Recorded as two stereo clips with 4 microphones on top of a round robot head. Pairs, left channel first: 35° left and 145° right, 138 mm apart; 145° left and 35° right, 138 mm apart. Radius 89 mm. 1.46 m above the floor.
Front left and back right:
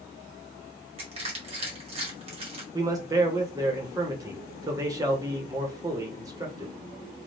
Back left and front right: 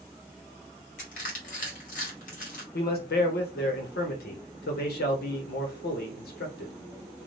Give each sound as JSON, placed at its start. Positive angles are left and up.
{"t": 1.0, "sound": "crushing", "azimuth_deg": 170, "distance_m": 1.5}
{"t": 2.7, "sound": "a man speaking", "azimuth_deg": 150, "distance_m": 1.3}